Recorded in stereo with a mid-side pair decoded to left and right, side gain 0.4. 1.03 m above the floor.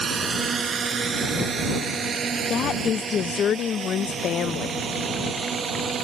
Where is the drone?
45° right; by 6.0 s 50° right.